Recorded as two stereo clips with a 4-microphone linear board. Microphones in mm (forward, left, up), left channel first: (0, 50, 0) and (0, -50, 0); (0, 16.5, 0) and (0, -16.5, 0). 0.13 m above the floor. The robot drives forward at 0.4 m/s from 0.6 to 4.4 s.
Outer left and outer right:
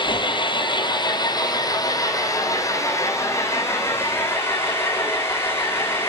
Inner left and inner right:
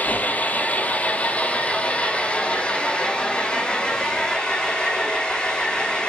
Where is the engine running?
55° left (ahead or behind), 1.3 m; by 6.1 s 25° left (ahead or behind), 2.5 m.